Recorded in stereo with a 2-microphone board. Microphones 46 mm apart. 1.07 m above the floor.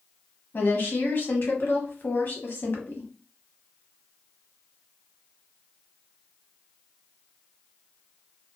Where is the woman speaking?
50° left (ahead or behind), 0.9 m.